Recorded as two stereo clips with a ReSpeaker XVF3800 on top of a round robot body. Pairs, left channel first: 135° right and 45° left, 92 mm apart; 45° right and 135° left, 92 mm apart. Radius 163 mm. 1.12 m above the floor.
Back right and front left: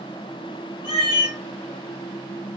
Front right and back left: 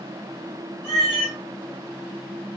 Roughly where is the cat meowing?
Left.